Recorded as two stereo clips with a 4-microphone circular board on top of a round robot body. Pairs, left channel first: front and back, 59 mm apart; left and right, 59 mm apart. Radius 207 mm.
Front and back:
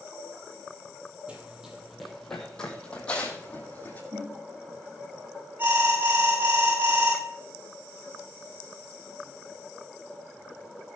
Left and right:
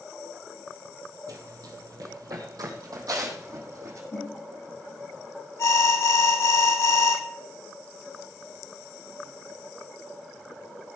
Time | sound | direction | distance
1.3 | running footsteps | 110° right | 1.3 m
4.1 | a whoosh | 130° left | 6 m
5.6 | an alarm | 125° left | 7 m